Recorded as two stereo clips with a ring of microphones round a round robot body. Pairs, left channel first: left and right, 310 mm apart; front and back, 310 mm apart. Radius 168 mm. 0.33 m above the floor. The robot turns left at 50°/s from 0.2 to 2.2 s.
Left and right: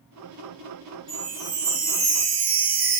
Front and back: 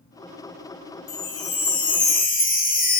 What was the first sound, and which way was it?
A chime, 5° left.